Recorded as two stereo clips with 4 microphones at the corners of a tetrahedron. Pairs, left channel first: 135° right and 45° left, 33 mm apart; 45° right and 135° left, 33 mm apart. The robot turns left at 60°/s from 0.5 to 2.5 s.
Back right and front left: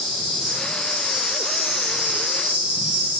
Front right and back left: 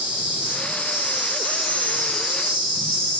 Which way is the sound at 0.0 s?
145° left.